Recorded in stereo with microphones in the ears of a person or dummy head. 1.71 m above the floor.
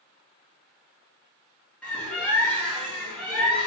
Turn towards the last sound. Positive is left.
turn(degrees=10)  # may be behind; listen again after turning